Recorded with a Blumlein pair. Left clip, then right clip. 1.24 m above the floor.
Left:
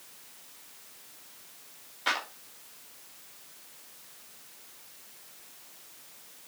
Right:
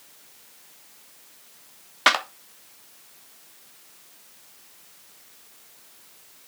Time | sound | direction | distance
2.1 | a clap | 40° right | 1.3 m